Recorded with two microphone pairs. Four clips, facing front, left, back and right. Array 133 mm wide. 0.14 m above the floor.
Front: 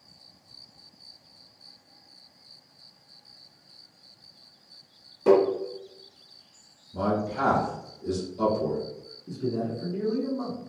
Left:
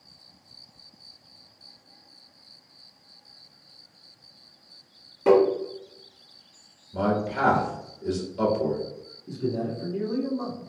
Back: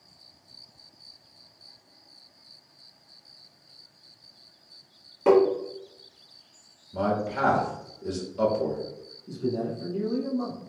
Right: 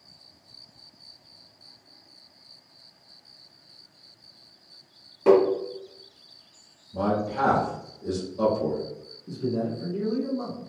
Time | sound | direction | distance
5.3 | tapping | 175° right | 1.7 m
6.9 | a man speaking | 140° left | 1.5 m
9.3 | a man speaking | 20° left | 1.1 m